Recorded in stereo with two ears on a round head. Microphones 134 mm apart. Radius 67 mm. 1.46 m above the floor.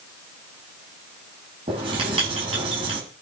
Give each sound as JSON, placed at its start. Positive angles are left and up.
{"t": 1.7, "sound": "writing", "side_deg": -35, "distance_m": 9.5}